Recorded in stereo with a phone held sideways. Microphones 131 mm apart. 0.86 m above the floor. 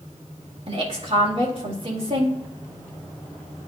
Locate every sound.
0.7 s a woman speaking: 45° right (ahead or behind), 1.9 m